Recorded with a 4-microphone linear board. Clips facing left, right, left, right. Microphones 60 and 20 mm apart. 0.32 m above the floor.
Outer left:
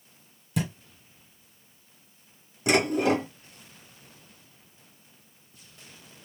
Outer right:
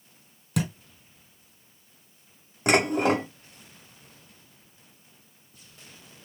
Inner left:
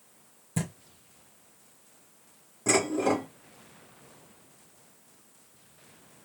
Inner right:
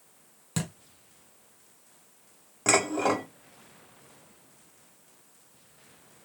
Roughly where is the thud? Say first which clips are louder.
Outer right 1 dB, even; right.